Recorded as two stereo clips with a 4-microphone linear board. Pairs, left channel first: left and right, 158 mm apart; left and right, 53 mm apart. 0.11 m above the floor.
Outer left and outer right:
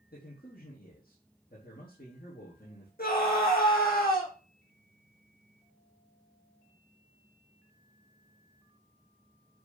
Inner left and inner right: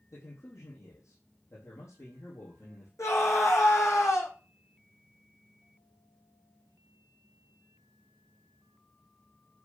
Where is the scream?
70° left (ahead or behind), 6 m.